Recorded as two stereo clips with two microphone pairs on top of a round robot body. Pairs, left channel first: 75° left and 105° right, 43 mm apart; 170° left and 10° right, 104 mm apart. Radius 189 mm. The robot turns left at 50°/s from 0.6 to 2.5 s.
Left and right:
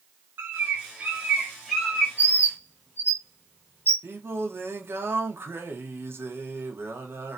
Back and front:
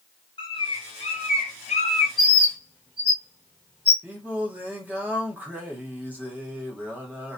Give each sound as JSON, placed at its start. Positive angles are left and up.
{"t": 0.4, "sound": "a bird", "azimuth_deg": -145, "distance_m": 0.8}
{"t": 2.2, "sound": "a bird", "azimuth_deg": 75, "distance_m": 0.9}
{"t": 4.0, "sound": "singing", "azimuth_deg": -85, "distance_m": 1.3}